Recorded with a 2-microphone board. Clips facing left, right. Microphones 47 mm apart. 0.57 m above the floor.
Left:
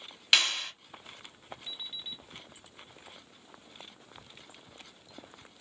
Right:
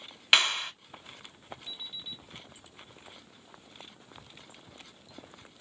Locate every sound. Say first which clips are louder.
0.3 s a clap: right 2 dB; 20° right (ahead or behind), 1.0 m
1.7 s an alarm clock: left 2 dB; 75° left (ahead or behind), 2 m